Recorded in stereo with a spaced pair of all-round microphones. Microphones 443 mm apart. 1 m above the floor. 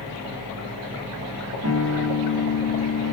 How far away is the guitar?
About 3 m.